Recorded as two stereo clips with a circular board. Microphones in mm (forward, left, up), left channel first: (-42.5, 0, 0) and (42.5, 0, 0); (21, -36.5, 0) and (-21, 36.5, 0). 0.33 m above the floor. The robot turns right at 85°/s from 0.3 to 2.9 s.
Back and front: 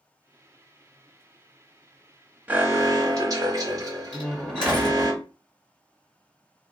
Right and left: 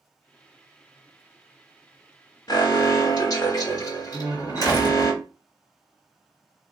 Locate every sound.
2.5 s an alarm: 70° right, 1.2 m; by 5.1 s 35° right, 1.2 m
4.1 s a door slam: 100° right, 1.9 m